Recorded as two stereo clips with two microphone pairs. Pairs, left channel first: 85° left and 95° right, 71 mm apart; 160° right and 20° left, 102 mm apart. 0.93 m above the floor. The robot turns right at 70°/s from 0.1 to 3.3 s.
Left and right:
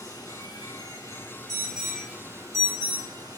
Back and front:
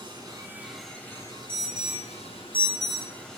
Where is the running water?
60° left, 4.5 m; by 3.4 s 75° right, 4.5 m.